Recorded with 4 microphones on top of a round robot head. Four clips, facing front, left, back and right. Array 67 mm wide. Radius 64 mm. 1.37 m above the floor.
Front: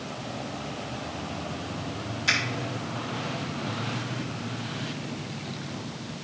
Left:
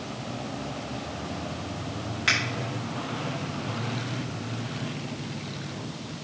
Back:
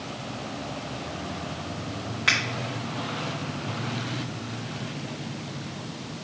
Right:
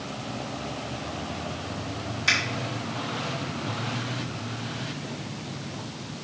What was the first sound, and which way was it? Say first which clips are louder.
A finger snap: right 1 dB, back 2 dB; 140° left.